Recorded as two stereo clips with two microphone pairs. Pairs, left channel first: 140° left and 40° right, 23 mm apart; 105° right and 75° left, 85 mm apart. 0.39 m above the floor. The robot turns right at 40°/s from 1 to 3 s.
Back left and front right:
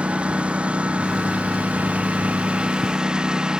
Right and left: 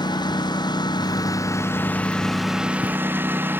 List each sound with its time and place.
0.0 s a lawn mower: 70° right; by 3.6 s 10° left